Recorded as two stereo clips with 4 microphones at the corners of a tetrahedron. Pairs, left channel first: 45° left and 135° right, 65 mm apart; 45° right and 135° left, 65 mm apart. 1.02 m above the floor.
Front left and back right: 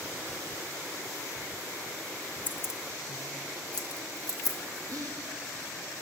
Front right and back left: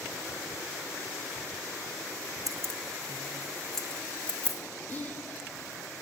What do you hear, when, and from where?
2.5 s keys jangling: 110° left, 0.6 m; by 4.6 s 25° left, 1.8 m
4.9 s whispering: 105° right, 1.4 m